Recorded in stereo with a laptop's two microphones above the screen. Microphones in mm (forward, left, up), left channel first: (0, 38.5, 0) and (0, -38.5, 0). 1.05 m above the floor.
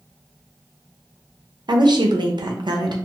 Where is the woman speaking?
70° right (ahead or behind), 0.5 m.